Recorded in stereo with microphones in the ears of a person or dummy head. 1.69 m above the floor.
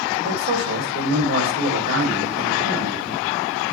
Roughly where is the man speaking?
Right.